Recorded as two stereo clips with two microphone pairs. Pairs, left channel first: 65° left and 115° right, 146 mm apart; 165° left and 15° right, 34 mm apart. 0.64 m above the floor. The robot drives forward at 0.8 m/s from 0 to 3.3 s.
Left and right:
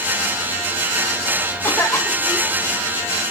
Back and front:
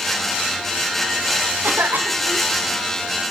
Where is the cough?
5° right, 3 m.